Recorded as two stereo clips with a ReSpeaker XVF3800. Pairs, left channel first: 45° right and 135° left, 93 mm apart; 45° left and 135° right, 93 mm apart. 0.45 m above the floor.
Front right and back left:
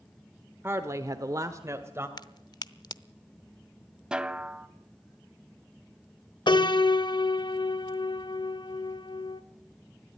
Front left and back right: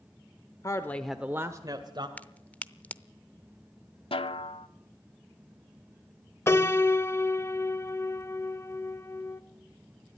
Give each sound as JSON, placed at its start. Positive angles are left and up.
{"t": 0.6, "sound": "a woman speaking", "azimuth_deg": 80, "distance_m": 1.1}
{"t": 2.2, "sound": "a crack", "azimuth_deg": -25, "distance_m": 0.6}
{"t": 4.1, "sound": "a snare drum", "azimuth_deg": 55, "distance_m": 0.7}
{"t": 6.5, "sound": "a piano", "azimuth_deg": -15, "distance_m": 0.7}